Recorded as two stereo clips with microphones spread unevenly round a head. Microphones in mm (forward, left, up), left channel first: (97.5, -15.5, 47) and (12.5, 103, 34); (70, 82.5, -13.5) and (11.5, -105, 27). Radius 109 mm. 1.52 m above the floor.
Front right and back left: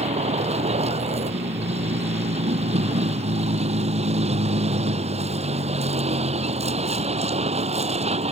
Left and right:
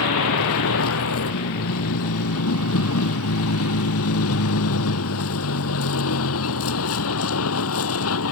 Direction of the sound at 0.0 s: 85° left.